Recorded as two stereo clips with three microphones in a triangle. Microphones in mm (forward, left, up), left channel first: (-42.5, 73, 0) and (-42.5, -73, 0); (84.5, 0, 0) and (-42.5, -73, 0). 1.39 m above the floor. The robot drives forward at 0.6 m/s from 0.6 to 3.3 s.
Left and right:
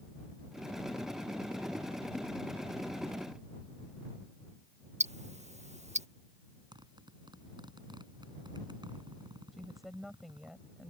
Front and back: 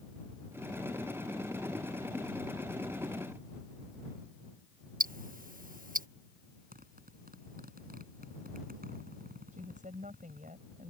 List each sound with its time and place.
5.0 s ticking: 130° right
6.7 s a zipper: 150° right
9.5 s a woman speaking: straight behind